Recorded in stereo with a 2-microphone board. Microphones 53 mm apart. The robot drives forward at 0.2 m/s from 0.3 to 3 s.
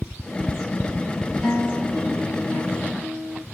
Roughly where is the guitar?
Centre.